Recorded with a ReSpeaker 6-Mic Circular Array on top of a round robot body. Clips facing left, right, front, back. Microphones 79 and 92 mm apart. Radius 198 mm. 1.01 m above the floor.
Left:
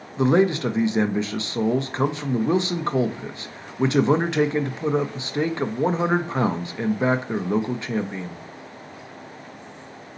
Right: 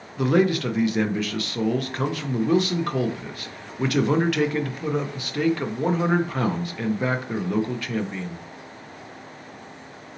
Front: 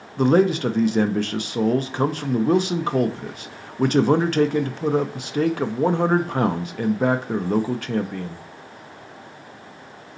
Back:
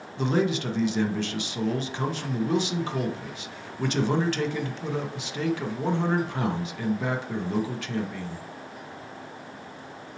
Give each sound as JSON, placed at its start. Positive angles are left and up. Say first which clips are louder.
{"t": 0.2, "sound": "a man speaking", "louder": "left 2 dB, front 8 dB", "azimuth_deg": 30, "distance_m": 0.7}